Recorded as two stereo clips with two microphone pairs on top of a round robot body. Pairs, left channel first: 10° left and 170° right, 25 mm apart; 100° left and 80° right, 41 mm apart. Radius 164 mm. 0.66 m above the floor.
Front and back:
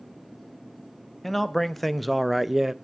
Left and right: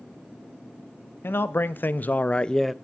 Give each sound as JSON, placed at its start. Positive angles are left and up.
{"t": 1.2, "sound": "a man speaking", "azimuth_deg": 95, "distance_m": 1.2}